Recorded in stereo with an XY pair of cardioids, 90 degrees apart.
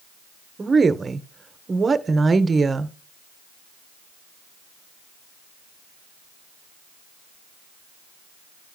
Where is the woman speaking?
35° right, 0.8 m.